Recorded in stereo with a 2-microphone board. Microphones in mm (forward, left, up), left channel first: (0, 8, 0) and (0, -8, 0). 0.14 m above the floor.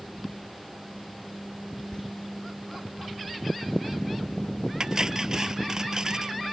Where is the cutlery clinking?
40° right (ahead or behind).